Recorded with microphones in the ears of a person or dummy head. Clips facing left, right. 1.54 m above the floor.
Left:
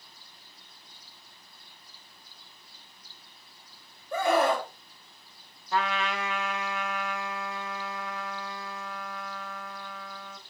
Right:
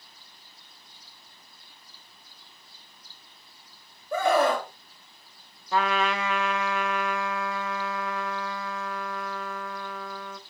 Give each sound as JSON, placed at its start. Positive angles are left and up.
{"t": 4.1, "sound": "a scream", "side_deg": -80, "distance_m": 1.4}
{"t": 5.7, "sound": "a trumpet", "side_deg": -65, "distance_m": 0.7}